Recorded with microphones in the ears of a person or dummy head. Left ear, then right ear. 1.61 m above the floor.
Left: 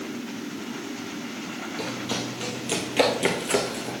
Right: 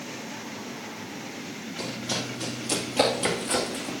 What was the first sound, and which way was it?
Running footsteps, 5° left (ahead or behind).